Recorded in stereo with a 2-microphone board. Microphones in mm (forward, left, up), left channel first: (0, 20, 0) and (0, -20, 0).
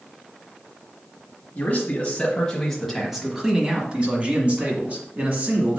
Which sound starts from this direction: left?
A man speaking, at 1.6 s.